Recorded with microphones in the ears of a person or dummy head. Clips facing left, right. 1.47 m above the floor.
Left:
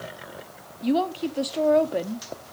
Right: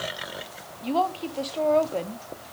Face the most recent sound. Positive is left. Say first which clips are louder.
# left 3 dB
turn(degrees=20)  # may be behind; listen again after turning